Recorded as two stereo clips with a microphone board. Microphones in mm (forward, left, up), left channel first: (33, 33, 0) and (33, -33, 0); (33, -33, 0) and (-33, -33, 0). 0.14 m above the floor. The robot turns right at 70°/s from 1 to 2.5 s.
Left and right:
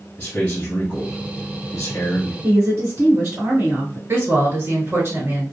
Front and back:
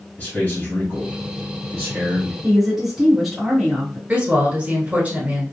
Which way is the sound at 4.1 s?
125° right.